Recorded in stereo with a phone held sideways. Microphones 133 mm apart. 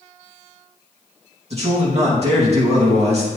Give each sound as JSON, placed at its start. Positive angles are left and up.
{"t": 1.5, "sound": "a man speaking", "side_deg": -55, "distance_m": 2.5}